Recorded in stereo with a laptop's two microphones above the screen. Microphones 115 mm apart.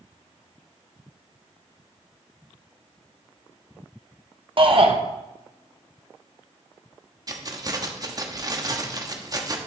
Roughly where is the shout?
Right.